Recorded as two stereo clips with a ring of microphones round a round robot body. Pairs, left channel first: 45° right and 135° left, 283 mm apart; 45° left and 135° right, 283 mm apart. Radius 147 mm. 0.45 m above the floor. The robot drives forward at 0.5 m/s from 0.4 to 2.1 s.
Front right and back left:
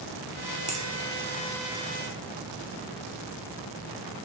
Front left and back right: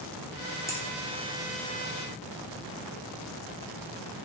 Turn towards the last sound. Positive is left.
turn(degrees=160)